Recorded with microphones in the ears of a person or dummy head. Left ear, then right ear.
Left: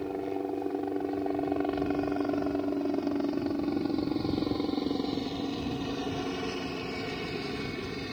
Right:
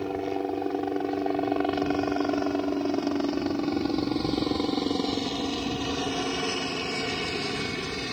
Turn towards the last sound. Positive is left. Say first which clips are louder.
# right 4 dB
turn(degrees=-25)  # may be behind; listen again after turning